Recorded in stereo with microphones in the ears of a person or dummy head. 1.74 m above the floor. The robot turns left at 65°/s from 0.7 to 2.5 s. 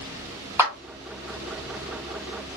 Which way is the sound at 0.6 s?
15° right (ahead or behind).